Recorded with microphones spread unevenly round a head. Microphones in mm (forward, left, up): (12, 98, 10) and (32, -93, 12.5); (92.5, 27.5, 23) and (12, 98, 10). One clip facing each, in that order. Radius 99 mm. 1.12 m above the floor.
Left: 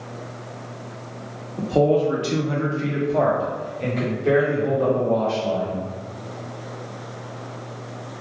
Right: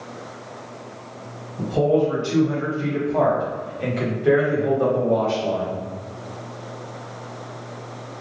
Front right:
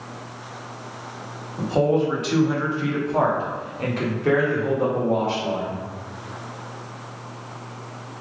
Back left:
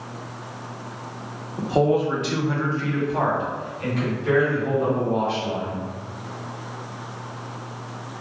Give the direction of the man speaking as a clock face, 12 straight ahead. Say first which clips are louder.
Left 1 dB, even; 10 o'clock.